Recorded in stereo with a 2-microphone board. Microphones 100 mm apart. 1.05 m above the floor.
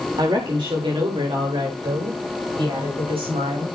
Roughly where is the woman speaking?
Right.